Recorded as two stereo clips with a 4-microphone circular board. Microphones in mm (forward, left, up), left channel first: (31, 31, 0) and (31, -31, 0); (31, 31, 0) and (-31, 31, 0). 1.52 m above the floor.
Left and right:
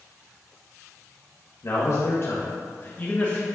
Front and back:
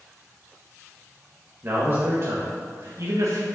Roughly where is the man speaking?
Behind left.